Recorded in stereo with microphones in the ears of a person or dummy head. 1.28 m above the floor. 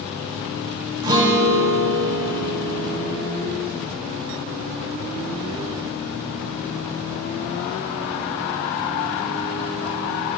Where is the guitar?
20° right (ahead or behind), 0.8 m.